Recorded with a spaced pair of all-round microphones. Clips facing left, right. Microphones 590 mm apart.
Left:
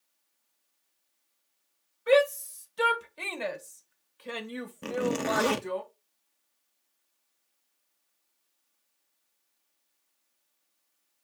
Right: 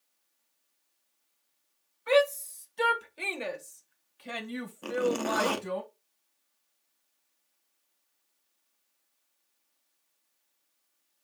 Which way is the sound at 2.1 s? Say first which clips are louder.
Left 2 dB; 40° left (ahead or behind).